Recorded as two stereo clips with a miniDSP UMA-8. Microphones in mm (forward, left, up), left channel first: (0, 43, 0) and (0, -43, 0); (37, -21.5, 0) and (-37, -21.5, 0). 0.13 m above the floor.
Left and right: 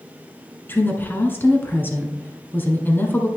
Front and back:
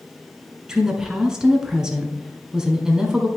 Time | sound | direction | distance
0.7 | a woman speaking | 115° left | 1.2 m